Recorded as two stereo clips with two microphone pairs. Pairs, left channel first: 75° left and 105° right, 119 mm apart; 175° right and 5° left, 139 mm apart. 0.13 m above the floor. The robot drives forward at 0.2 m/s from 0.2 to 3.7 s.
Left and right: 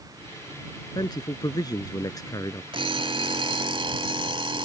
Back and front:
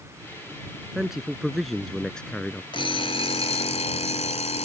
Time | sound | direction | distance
0.9 | a man speaking | 90° left | ?
2.7 | an alarm clock | 135° right | ?